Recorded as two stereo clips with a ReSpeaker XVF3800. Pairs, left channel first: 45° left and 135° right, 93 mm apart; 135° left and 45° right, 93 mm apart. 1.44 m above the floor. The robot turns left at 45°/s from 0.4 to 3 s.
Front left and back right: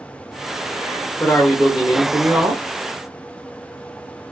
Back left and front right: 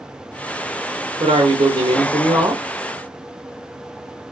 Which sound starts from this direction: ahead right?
A man speaking, at 1.2 s.